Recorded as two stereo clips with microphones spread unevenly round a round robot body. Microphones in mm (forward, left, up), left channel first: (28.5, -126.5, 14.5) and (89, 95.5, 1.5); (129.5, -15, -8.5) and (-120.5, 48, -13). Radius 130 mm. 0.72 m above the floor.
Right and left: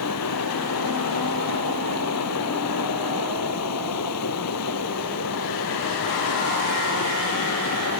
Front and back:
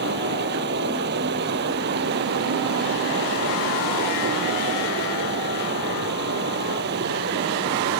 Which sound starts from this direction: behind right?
Running water, at 0.0 s.